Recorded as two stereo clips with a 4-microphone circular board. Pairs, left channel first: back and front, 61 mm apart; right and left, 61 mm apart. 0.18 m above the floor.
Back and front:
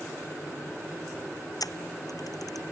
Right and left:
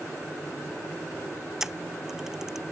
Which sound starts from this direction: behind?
A camera shutter, at 1.6 s.